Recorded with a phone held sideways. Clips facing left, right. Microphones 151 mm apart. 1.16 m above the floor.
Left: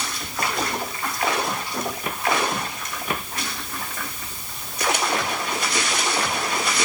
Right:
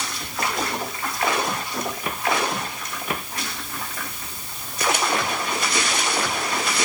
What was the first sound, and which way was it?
Only background noise.